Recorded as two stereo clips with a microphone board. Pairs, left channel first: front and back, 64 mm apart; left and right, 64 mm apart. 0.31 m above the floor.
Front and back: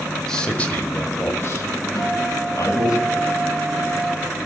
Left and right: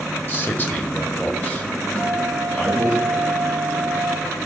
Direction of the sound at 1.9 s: 20° left.